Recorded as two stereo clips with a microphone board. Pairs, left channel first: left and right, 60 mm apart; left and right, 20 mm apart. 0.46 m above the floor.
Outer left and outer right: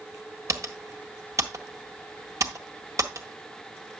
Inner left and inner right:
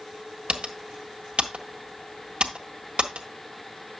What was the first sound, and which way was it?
Typing on a keyboard, 65° right (ahead or behind).